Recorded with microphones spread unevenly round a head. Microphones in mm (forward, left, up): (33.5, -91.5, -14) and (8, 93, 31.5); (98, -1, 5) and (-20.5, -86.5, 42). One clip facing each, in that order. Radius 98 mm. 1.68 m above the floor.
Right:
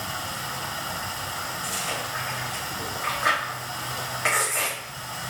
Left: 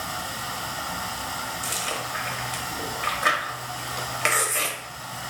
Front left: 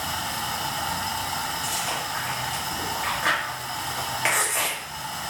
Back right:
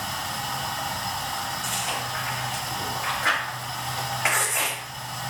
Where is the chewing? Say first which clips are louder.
Even, front left 1 dB; 115° left, 0.9 m.